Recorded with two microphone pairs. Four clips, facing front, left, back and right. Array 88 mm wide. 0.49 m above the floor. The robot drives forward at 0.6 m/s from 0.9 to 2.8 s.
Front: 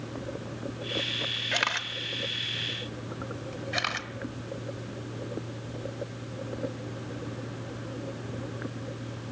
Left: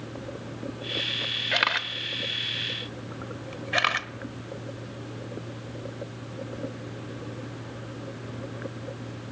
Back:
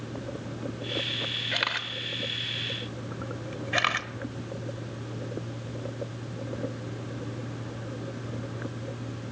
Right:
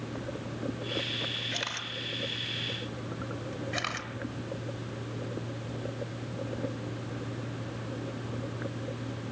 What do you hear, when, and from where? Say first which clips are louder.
1.5 s a camera shutter: left 10 dB, front 2 dB; 85° left, 0.9 m; by 4.1 s 130° left, 1.2 m